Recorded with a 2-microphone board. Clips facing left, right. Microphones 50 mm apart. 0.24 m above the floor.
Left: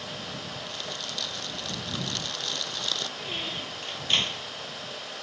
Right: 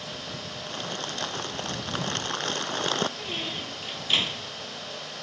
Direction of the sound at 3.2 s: 5° right (ahead or behind).